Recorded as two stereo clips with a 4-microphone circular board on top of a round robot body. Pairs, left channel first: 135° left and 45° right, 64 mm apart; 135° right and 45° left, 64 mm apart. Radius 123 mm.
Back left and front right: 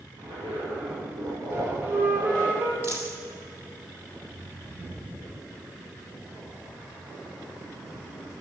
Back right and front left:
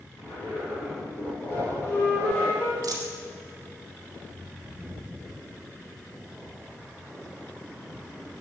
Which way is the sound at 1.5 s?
95° right.